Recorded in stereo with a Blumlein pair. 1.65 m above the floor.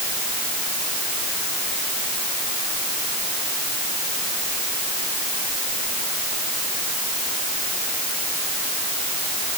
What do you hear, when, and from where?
Only background noise.